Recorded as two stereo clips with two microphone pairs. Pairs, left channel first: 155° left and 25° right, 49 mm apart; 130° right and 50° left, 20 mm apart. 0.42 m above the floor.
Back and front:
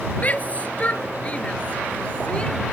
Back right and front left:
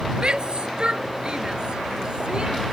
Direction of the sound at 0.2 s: 95° left.